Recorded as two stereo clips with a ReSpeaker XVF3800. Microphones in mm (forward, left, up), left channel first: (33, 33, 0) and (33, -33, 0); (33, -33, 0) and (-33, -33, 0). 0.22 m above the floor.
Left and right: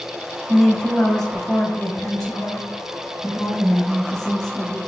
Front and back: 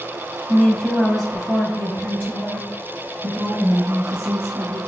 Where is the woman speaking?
30° left, 1.1 m; by 4.8 s 175° left, 2.5 m.